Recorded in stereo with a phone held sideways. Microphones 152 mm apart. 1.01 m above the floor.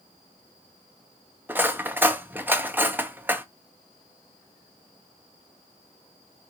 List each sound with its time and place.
1.5 s cutlery clinking: 15° right (ahead or behind), 0.5 m